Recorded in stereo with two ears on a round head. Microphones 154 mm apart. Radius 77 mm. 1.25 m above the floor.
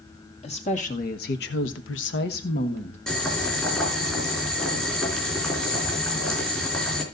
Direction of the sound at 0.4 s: 40° left (ahead or behind).